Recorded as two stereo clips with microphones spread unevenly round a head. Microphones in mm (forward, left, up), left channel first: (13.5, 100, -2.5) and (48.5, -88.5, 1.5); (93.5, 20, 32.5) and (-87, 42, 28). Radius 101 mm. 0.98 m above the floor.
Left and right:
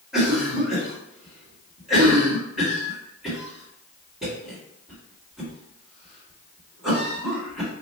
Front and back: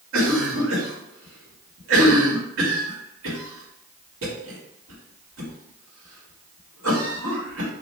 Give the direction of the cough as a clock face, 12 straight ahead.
6 o'clock.